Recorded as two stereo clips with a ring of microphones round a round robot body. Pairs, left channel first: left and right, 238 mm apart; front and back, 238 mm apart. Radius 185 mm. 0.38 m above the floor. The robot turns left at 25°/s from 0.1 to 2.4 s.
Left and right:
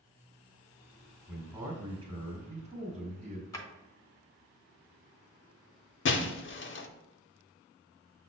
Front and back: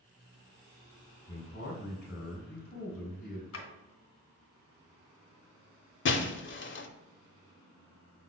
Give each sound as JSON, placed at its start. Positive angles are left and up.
{"t": 1.3, "sound": "a man speaking", "azimuth_deg": -10, "distance_m": 1.9}
{"t": 3.5, "sound": "a drawer", "azimuth_deg": 15, "distance_m": 1.3}
{"t": 6.0, "sound": "breaking glass", "azimuth_deg": 45, "distance_m": 0.7}